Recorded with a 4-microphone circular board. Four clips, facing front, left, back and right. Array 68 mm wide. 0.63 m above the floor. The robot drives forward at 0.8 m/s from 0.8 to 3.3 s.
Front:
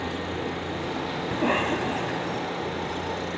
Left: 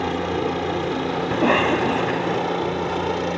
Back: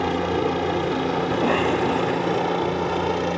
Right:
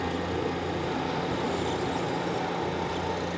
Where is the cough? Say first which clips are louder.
Left 10 dB, back 2 dB; 90° left; by 2.4 s 100° left.